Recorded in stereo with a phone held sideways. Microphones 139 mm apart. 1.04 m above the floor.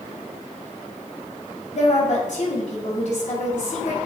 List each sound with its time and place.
1.7 s a woman speaking: 60° left (ahead or behind), 2.5 m